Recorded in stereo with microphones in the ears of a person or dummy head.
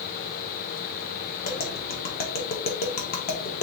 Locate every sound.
1.4 s tapping: 45° left (ahead or behind), 1.1 m